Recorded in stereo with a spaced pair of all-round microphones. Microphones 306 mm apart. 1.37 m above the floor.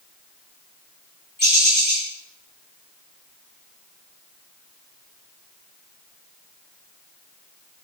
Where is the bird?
35° left (ahead or behind), 5 m.